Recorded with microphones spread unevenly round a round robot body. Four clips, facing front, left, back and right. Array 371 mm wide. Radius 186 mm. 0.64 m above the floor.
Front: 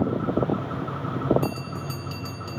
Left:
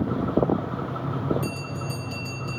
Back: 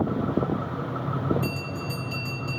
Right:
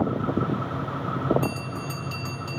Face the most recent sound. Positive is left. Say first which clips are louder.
# right 2 dB, front 1 dB
turn(degrees=5)